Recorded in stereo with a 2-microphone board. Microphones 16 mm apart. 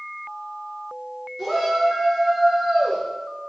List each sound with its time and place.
1.4 s a shout: centre (ahead or behind), 5 m; by 3.0 s 15° right (ahead or behind), 5 m